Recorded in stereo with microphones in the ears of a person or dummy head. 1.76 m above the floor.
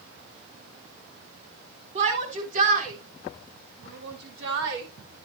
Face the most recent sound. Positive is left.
turn(degrees=-65)  # may be behind; listen again after turning